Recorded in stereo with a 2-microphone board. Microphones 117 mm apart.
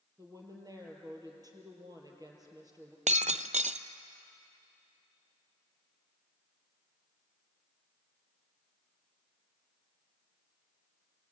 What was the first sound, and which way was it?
A woman speaking, 30° right (ahead or behind).